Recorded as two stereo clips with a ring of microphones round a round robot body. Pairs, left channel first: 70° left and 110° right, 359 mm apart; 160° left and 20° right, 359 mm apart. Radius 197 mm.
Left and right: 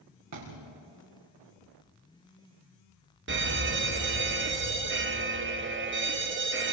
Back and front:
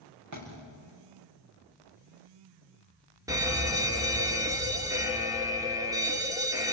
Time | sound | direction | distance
0.3 | a thud | 65° right | 6 m
3.3 | a fire alarm | 95° right | 1.9 m